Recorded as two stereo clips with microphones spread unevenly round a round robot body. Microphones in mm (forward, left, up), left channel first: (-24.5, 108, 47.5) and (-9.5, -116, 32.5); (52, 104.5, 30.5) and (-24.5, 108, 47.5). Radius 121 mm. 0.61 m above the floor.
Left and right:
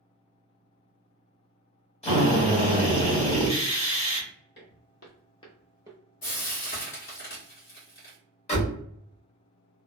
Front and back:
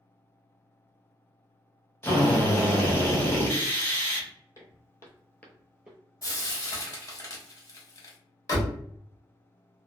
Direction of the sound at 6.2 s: 45° left.